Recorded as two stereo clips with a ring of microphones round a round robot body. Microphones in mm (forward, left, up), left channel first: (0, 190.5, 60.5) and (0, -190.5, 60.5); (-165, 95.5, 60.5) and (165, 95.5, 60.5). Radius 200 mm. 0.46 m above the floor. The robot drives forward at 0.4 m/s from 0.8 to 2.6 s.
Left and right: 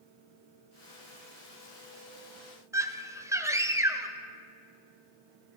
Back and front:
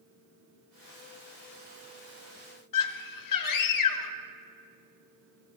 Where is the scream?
170° right, 2 m.